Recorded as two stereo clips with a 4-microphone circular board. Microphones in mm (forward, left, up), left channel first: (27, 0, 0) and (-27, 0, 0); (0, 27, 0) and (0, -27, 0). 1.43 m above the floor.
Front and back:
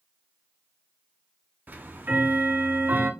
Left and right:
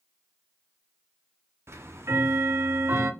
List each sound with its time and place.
1.7 s ticking: 125° right, 0.6 m